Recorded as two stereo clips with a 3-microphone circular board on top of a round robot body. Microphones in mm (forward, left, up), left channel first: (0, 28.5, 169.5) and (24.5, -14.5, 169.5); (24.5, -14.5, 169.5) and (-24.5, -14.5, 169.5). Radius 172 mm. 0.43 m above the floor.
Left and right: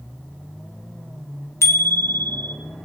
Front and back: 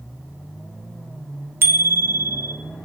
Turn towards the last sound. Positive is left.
turn(degrees=145)